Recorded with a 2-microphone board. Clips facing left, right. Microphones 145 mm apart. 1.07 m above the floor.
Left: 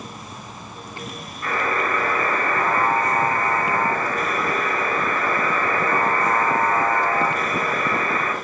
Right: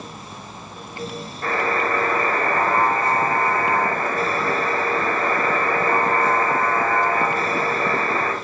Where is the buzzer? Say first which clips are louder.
Right 1 dB; 70° right (ahead or behind), 4 m.